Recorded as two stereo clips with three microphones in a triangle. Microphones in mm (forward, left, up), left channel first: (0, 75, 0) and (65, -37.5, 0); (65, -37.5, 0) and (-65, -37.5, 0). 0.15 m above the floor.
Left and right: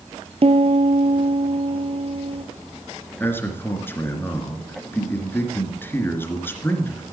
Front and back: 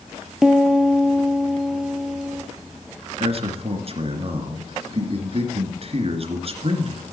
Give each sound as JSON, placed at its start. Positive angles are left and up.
{"t": 0.4, "sound": "a piano", "azimuth_deg": -95, "distance_m": 0.8}
{"t": 3.2, "sound": "a man speaking", "azimuth_deg": -170, "distance_m": 2.5}